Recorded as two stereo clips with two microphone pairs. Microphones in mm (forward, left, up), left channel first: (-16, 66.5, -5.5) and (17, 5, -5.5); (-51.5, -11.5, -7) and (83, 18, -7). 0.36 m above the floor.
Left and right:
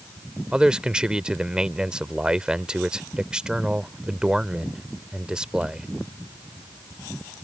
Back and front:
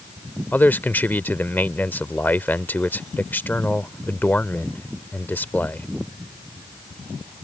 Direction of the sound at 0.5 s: 115° right.